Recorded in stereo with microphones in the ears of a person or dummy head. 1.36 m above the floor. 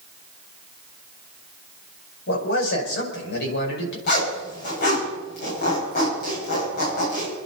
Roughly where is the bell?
No bell in this recording.